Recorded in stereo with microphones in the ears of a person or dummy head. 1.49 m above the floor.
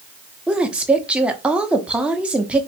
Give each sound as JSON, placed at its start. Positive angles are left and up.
{"t": 0.5, "sound": "a woman speaking", "side_deg": -5, "distance_m": 0.6}